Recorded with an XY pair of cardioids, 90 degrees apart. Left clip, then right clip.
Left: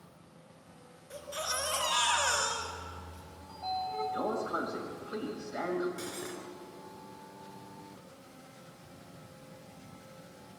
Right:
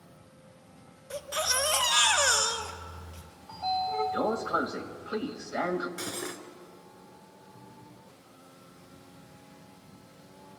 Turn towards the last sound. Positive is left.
turn(degrees=-60)